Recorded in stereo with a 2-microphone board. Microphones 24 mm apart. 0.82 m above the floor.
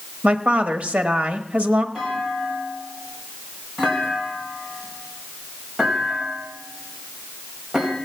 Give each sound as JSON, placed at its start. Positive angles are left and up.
{"t": 0.2, "sound": "a woman speaking", "side_deg": -65, "distance_m": 1.1}
{"t": 1.9, "sound": "a clunk", "side_deg": -15, "distance_m": 4.5}